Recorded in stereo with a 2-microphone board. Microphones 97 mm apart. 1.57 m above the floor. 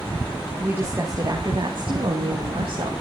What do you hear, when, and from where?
0.6 s a woman speaking: 20° right (ahead or behind), 2.5 m; by 2.9 s 80° right, 3 m